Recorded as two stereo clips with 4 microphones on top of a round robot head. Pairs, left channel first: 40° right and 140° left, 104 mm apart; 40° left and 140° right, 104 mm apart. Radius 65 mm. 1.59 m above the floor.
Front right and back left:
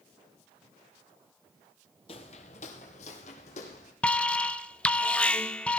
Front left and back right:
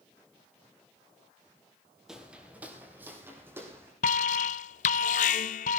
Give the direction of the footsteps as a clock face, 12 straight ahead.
2 o'clock.